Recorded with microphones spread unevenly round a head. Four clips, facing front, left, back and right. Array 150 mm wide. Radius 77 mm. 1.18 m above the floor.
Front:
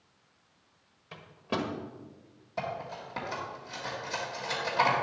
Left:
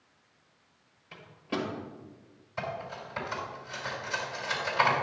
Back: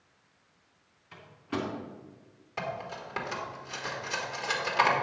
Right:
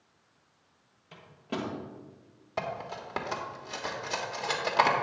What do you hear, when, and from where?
1.1 s a microwave: 10° right, 1.4 m
2.6 s cutlery clinking: 95° right, 1.6 m